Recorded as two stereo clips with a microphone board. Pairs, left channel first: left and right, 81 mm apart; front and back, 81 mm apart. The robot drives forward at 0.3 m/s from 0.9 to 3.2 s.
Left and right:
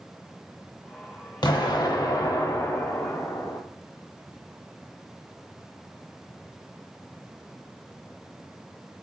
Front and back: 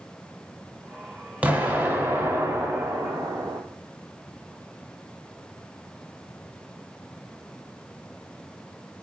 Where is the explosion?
110° left, 0.8 m; by 3.6 s 135° left, 1.1 m.